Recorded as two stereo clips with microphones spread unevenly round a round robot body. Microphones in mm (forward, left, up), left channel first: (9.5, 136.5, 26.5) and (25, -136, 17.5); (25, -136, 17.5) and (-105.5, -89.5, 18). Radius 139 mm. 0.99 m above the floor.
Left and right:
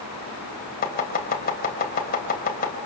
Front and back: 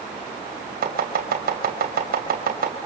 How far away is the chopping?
About 3.5 m.